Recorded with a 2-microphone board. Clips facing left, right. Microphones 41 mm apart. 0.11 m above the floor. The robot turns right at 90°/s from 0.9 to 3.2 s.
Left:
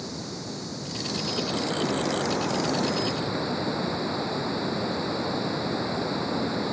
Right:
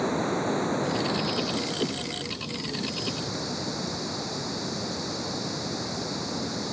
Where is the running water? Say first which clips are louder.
Right 10 dB; 45° right; by 6.7 s 160° left.